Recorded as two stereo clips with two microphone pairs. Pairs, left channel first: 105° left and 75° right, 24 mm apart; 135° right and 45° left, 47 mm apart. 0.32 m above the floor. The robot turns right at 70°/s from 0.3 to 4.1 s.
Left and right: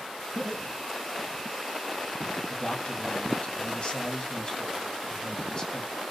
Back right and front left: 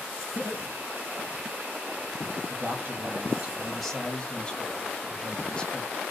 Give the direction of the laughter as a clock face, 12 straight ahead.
4 o'clock.